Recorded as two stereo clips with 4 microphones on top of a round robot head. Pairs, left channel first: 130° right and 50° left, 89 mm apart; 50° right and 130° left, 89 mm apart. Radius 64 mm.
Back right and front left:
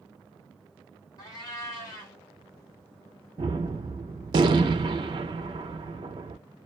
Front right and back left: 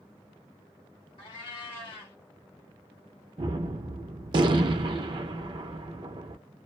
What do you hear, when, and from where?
1.2 s a cat meowing: 85° right, 1.2 m
3.4 s a gunshot: 90° left, 0.5 m